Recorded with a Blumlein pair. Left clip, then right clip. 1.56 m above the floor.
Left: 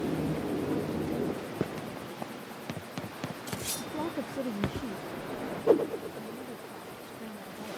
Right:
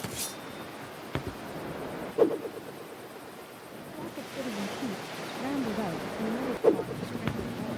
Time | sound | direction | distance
3.8 | a woman speaking | 30° left | ?